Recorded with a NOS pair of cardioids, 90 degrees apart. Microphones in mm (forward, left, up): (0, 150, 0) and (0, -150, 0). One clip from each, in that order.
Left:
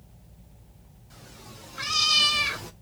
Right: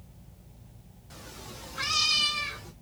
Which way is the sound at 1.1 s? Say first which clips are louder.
Right 3 dB; 30° right.